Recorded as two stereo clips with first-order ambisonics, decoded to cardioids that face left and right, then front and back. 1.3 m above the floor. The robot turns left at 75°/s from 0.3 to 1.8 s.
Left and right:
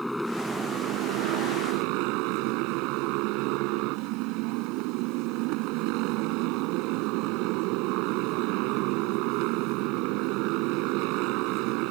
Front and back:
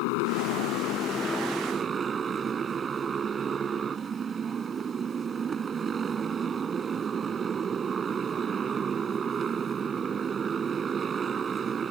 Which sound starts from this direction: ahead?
A motorcycle, at 0.0 s.